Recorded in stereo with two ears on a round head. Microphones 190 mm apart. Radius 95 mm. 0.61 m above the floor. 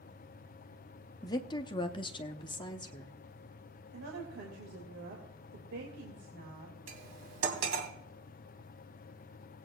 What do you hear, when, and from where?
1.2 s a woman speaking: 20° left (ahead or behind), 0.8 m
3.9 s a woman speaking: 65° right (ahead or behind), 3 m
6.9 s cutlery clinking: 70° right (ahead or behind), 2.5 m